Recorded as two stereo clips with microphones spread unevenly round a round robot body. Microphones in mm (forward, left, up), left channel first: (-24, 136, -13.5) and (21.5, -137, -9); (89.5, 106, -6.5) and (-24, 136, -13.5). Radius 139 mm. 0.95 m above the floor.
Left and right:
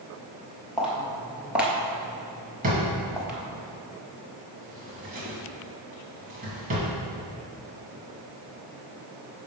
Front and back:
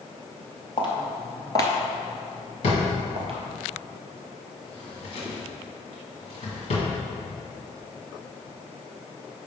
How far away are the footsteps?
About 1.6 m.